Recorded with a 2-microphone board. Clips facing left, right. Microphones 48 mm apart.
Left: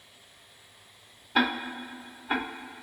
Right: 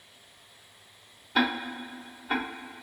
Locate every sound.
1.4 s ticking: 10° left (ahead or behind), 0.6 m